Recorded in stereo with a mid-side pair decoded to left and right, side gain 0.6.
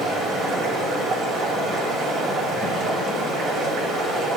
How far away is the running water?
About 4 m.